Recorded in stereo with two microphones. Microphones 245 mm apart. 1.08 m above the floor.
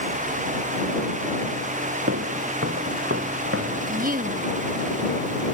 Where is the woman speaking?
40° right (ahead or behind).